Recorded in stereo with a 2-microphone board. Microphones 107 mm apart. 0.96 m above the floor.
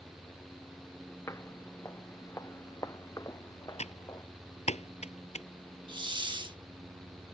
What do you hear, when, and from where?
1.3 s footsteps: 25° left (ahead or behind); by 4.2 s 30° left (ahead or behind)
3.8 s typing on a keyboard: 75° left (ahead or behind)
5.9 s a hiss: 45° right (ahead or behind)